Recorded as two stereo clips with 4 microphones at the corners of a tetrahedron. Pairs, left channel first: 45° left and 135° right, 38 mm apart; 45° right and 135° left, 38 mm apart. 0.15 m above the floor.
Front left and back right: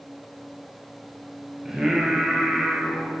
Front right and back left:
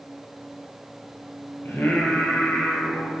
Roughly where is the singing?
Ahead right.